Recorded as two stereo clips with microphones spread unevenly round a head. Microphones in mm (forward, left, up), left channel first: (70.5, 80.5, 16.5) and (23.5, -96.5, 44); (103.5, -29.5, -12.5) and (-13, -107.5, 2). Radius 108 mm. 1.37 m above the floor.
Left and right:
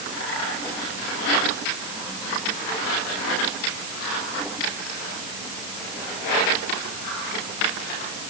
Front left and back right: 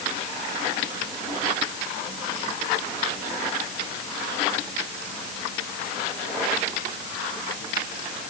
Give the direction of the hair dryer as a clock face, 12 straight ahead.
I don't hear a hair dryer.